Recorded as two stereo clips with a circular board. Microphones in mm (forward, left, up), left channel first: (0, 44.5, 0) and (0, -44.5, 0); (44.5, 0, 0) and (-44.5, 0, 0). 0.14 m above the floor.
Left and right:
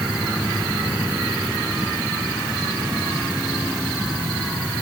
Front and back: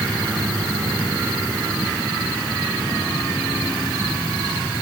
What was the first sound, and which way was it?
Only background noise.